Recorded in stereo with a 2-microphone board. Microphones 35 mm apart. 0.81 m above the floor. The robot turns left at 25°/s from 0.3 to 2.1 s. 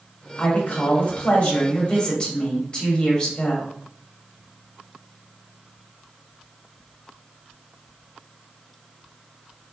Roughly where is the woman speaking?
Left.